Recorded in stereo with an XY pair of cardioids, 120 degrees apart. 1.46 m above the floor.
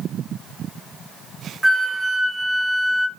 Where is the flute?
5° right, 0.7 m.